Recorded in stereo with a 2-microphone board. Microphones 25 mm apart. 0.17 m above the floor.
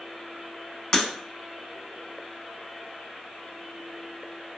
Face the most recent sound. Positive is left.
turn(degrees=30)  # may be behind; listen again after turning